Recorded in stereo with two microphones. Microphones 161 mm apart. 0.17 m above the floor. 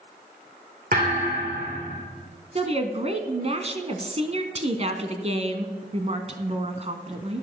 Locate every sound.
0.9 s a thud: 60° right (ahead or behind), 5.5 m
2.5 s a woman speaking: 40° right (ahead or behind), 1.3 m